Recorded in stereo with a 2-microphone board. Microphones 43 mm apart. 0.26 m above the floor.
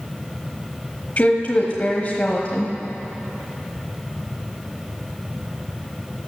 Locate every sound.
1.2 s a woman speaking: 35° left (ahead or behind), 1.2 m